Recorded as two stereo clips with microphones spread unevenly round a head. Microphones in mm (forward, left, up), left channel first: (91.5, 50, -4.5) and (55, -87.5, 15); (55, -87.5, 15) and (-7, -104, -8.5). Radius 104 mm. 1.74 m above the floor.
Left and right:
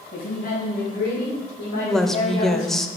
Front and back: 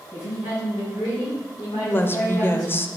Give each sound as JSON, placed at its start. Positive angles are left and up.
{"t": 0.1, "sound": "a woman speaking", "azimuth_deg": 60, "distance_m": 3.5}
{"t": 1.8, "sound": "a woman speaking", "azimuth_deg": -15, "distance_m": 0.7}